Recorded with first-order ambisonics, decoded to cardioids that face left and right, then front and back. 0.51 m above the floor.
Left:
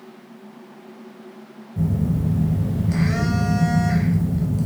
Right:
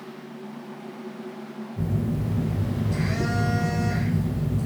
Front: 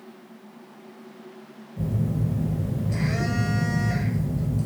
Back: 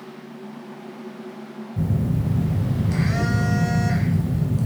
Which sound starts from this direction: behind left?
A phone buzzing, at 1.8 s.